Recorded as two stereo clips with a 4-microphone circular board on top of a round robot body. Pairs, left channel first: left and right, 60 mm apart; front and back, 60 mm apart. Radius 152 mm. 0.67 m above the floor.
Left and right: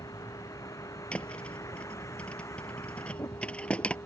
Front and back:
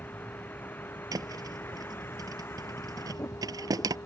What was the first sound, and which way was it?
A vehicle, 60° left.